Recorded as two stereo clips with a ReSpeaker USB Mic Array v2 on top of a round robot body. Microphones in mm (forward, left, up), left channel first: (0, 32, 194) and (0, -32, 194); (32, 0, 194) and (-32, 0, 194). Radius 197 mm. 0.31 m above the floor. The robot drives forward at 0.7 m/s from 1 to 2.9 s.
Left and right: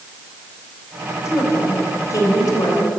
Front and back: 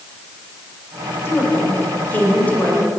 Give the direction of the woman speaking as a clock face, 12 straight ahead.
10 o'clock.